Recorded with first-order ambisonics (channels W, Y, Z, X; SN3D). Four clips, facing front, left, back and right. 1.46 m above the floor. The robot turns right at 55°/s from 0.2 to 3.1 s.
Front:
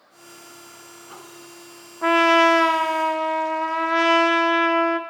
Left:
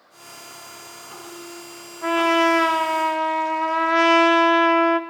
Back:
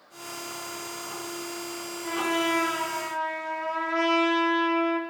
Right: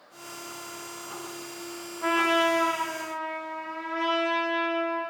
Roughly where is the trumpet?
Ahead.